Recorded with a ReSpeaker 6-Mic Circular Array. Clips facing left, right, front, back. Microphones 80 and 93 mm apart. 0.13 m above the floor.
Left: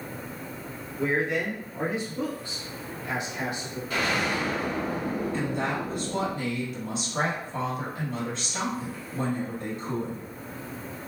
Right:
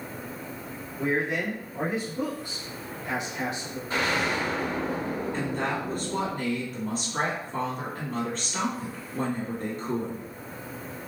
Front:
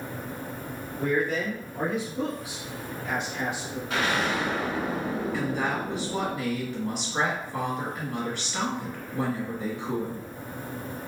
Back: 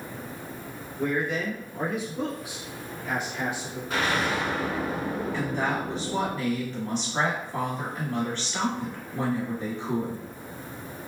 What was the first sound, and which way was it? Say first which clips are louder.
A man speaking: left 1 dB, front 1 dB; 15° right.